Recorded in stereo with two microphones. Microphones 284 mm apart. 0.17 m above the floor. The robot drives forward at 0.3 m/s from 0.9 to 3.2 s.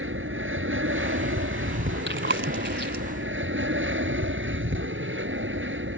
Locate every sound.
0.0 s an aircraft: 45° right (ahead or behind)
2.1 s chewing: 40° right (ahead or behind); by 3.0 s 35° right (ahead or behind)